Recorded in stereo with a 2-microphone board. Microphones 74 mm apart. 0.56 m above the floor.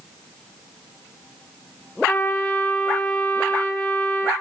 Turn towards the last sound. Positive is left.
turn(degrees=25)  # may be behind; listen again after turning